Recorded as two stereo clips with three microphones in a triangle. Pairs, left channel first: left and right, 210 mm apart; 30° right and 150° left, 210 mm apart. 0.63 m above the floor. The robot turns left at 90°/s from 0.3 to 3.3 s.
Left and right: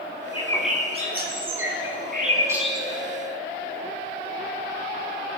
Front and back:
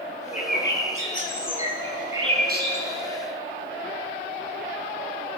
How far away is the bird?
About 4 m.